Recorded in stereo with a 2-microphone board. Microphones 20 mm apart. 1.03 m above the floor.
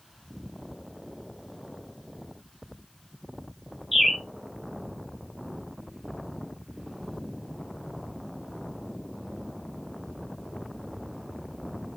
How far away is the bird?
About 1.4 m.